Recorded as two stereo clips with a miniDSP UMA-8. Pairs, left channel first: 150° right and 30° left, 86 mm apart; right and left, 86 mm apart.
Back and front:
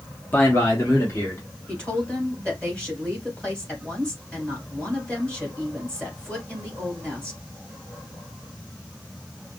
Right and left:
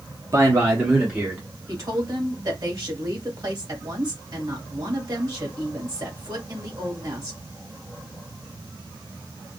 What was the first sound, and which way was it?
A man speaking, 140° left.